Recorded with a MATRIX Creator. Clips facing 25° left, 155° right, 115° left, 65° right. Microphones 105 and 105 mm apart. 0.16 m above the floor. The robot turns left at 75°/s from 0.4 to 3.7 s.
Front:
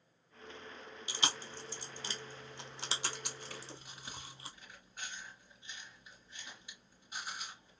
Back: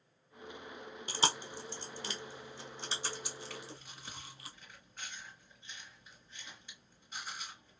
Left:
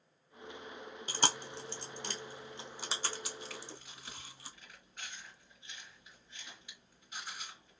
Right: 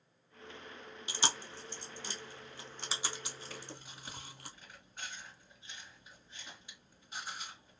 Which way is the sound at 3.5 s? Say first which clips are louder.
Back 2 dB, even; 35° right.